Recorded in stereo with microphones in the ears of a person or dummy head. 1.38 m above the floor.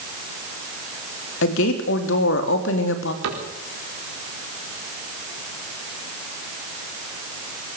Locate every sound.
1.4 s a woman speaking: 65° left (ahead or behind), 3 m
3.2 s a cupboard door: 75° right (ahead or behind), 4 m